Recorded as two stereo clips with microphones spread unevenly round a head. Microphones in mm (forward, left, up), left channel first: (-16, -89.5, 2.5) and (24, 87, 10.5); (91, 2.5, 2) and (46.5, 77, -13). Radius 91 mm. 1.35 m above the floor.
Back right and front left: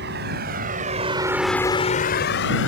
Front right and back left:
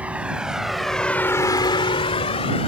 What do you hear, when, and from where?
0.0 s a vehicle: 45° left; by 2.7 s 80° right